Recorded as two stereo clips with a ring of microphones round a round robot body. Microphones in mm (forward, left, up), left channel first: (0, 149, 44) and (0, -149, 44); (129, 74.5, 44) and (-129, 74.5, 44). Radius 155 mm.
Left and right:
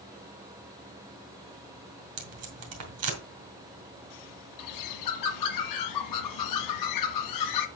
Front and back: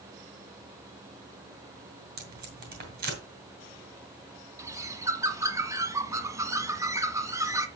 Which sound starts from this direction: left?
A bird, at 4.6 s.